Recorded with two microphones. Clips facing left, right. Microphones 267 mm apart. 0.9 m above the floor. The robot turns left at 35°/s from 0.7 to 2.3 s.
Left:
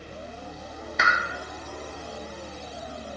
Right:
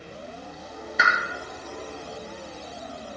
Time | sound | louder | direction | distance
1.0 | a pop | right 1 dB | 5° right (ahead or behind) | 0.9 m